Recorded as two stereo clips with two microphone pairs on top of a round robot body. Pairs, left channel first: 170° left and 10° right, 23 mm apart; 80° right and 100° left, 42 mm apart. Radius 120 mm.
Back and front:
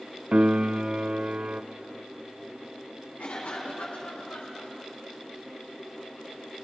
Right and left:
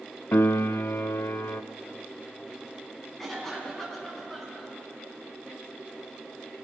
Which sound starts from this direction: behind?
A cough, at 3.2 s.